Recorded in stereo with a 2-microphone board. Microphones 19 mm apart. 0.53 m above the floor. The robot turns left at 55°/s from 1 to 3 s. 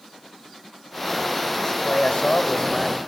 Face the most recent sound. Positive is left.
turn(degrees=25)